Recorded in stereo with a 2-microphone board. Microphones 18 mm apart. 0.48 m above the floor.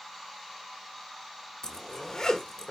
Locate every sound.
1.6 s a zipper: 50° left (ahead or behind), 1.2 m